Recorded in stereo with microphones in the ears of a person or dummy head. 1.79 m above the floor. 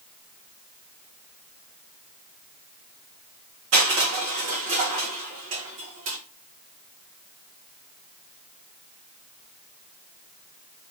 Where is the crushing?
40° right (ahead or behind), 1.3 m.